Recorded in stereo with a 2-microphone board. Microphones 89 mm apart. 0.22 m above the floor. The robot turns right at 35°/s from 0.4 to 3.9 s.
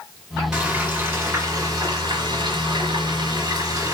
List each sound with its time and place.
0.5 s frying: 170° right, 2.5 m; by 3.9 s 50° right, 2.5 m